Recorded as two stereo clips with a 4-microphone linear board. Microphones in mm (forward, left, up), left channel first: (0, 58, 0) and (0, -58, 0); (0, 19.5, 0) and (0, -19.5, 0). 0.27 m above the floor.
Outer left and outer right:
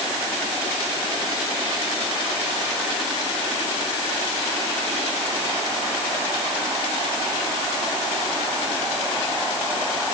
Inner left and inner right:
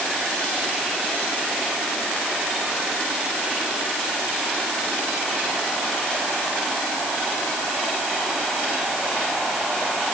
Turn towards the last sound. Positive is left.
No sound to turn to.